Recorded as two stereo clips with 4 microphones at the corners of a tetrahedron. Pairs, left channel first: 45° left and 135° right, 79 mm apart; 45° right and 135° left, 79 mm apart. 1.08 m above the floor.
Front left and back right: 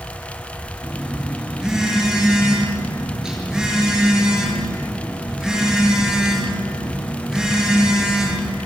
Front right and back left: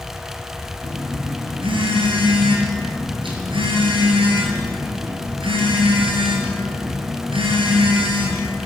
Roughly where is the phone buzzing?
Behind left.